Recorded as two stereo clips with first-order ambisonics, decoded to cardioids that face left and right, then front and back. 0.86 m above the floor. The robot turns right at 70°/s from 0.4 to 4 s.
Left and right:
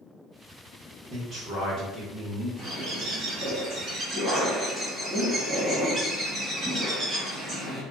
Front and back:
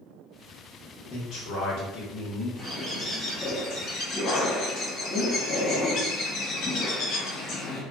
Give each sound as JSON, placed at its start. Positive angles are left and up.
{"t": 1.1, "sound": "a man speaking", "azimuth_deg": -35, "distance_m": 0.9}
{"t": 2.6, "sound": "a bird", "azimuth_deg": -125, "distance_m": 1.3}